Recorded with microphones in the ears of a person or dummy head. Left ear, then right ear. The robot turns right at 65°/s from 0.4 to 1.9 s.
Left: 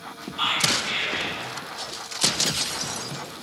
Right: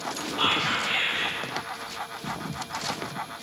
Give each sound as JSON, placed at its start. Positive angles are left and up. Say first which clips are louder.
{"t": 0.4, "sound": "whispering", "louder": "left 2 dB", "azimuth_deg": -15, "distance_m": 1.9}